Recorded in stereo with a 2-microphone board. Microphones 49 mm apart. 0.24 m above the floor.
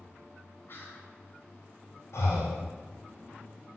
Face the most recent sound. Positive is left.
turn(degrees=75)  # may be behind; listen again after turning